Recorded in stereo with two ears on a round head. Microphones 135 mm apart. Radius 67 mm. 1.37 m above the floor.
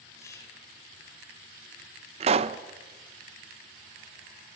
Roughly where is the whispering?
Centre.